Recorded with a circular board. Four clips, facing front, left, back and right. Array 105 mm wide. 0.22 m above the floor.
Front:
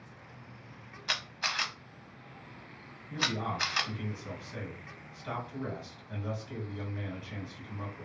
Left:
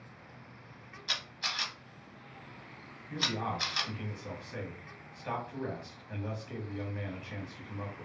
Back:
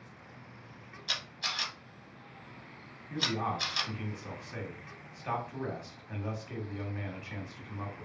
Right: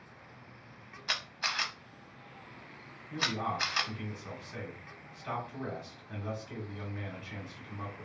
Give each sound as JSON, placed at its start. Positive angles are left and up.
{"t": 1.1, "sound": "a camera shutter", "azimuth_deg": -35, "distance_m": 0.5}
{"t": 3.1, "sound": "a man speaking", "azimuth_deg": 165, "distance_m": 1.4}